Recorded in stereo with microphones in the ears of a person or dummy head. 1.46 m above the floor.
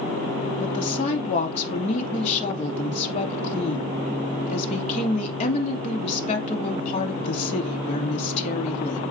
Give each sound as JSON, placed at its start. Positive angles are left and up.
{"t": 0.6, "sound": "a woman speaking", "side_deg": 45, "distance_m": 2.5}